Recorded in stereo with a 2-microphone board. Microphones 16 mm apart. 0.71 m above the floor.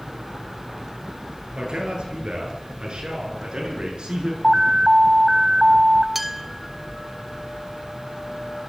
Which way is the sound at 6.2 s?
15° right (ahead or behind).